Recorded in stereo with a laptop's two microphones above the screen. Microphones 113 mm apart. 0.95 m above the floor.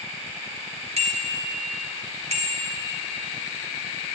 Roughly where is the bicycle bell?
Right.